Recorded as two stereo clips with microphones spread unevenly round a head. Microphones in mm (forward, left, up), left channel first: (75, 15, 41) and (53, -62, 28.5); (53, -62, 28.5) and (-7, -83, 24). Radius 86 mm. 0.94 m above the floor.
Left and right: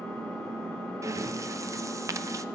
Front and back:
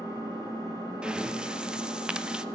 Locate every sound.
0.0 s an engine running: 165° right, 3 m
1.0 s breathing: 90° right, 0.7 m